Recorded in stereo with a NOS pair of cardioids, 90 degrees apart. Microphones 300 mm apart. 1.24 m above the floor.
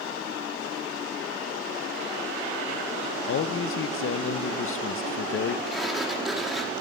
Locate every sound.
3.3 s a man speaking: 45° left, 0.7 m
5.7 s a sliding door: straight ahead, 2 m